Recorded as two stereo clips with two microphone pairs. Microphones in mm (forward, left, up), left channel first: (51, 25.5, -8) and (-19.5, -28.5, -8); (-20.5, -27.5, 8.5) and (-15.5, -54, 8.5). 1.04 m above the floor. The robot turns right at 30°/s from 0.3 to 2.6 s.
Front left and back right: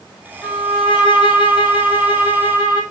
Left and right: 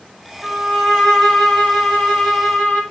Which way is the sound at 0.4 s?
5° left.